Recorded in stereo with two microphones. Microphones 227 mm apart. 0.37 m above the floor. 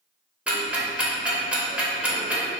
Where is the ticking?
5° right (ahead or behind), 0.6 m.